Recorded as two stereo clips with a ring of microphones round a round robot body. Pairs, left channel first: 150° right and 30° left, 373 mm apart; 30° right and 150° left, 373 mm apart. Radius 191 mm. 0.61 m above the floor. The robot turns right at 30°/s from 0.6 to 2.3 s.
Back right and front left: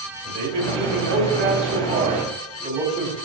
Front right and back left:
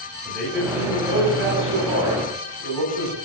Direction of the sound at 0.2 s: 60° left.